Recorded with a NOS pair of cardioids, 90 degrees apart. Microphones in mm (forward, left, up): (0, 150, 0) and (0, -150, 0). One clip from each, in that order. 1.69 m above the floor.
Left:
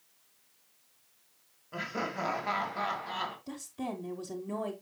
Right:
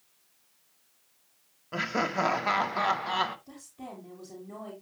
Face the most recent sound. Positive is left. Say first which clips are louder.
# left 6 dB
turn(degrees=55)